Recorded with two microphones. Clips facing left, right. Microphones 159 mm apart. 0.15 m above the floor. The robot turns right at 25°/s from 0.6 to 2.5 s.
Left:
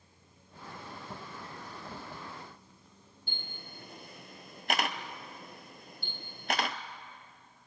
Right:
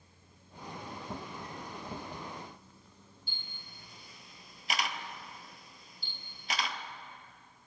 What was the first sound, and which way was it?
A camera shutter, 70° left (ahead or behind).